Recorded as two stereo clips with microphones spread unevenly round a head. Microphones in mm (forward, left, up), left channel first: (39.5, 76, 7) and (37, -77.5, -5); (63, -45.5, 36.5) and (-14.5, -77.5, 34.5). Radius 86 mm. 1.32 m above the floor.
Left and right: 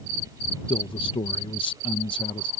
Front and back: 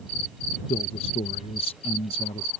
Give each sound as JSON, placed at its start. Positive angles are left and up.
{"t": 0.7, "sound": "a man speaking", "azimuth_deg": 30}